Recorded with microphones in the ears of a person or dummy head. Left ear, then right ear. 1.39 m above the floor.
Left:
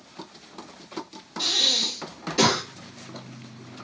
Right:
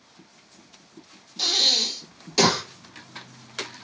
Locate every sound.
1.4 s breathing: 45° right (ahead or behind), 1.8 m